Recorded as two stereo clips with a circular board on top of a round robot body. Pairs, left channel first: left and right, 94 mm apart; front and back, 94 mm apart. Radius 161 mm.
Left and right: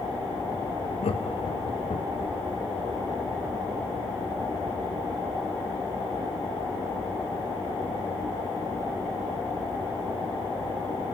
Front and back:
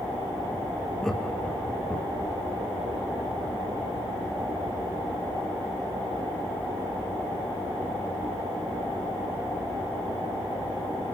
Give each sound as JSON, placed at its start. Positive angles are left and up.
{"t": 1.0, "sound": "laughter", "azimuth_deg": 90, "distance_m": 1.8}